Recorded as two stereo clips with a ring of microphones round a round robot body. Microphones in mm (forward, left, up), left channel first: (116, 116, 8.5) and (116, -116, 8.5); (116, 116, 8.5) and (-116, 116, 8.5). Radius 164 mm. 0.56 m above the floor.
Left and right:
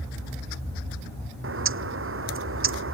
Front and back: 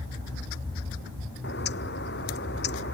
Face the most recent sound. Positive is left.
turn(degrees=-60)